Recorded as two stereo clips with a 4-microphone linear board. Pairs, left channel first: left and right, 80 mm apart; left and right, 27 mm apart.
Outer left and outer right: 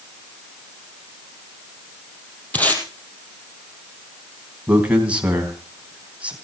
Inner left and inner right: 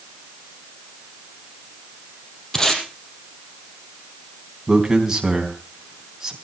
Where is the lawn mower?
No lawn mower in this recording.